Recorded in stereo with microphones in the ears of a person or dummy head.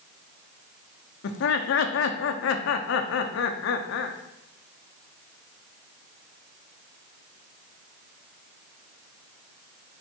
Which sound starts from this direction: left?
Laughter, at 1.2 s.